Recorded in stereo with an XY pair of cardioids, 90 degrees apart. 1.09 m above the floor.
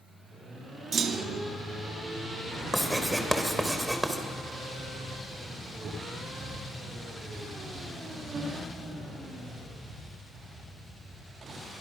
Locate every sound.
0.9 s a clunk: 60° right, 1.1 m
2.7 s writing: 5° right, 3.5 m